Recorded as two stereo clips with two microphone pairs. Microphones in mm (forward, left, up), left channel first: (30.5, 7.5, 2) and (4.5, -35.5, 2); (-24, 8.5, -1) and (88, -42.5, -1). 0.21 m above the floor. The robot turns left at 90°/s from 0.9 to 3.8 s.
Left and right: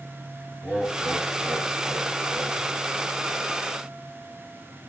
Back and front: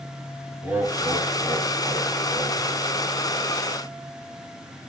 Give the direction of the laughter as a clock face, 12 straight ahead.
2 o'clock.